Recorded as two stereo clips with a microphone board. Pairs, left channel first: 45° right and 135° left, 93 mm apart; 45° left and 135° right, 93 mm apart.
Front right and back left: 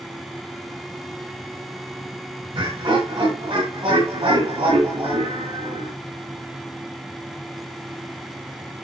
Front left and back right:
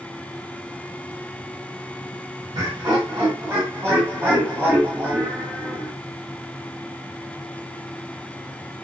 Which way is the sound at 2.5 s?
Straight behind.